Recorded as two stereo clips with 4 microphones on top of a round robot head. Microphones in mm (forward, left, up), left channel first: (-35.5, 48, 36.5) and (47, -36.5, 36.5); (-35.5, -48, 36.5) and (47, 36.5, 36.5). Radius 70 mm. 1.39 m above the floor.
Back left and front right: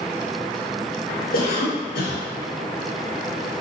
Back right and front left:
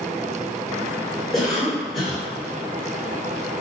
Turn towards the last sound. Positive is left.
turn(degrees=135)